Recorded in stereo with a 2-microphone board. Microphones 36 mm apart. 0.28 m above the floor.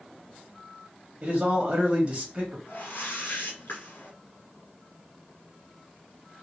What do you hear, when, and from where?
1.2 s a man speaking: 35° right (ahead or behind), 1.1 m
2.7 s a whoosh: 80° left, 1.8 m